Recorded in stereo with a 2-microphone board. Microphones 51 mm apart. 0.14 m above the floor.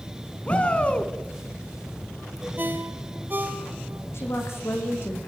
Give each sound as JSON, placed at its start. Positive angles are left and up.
{"t": 0.5, "sound": "a shout", "side_deg": 25, "distance_m": 1.7}
{"t": 2.6, "sound": "a ringtone", "side_deg": -40, "distance_m": 3.0}
{"t": 4.1, "sound": "a woman speaking", "side_deg": 55, "distance_m": 7.5}